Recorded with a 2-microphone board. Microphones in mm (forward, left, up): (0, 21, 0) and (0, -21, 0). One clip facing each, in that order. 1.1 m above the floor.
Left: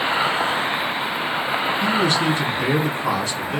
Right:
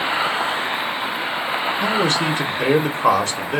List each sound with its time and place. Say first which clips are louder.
1.8 s a man speaking: even; 50° right (ahead or behind), 0.9 m